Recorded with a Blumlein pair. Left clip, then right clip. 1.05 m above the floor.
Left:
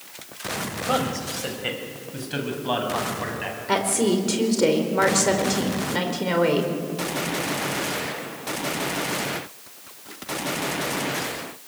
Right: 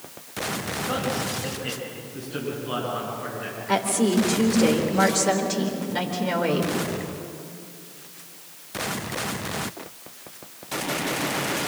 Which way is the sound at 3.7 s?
10° left.